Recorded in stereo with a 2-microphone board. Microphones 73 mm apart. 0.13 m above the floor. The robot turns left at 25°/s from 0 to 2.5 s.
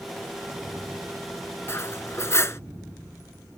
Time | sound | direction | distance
1.7 | cutlery clinking | 40° left (ahead or behind) | ?